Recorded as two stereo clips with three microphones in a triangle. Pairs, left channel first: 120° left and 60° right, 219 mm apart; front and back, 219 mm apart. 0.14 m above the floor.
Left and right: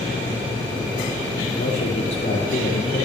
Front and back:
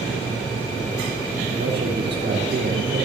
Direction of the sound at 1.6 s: 145° left.